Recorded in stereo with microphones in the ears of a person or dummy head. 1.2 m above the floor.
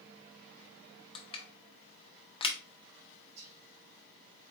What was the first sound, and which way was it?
Crushing, 25° left (ahead or behind).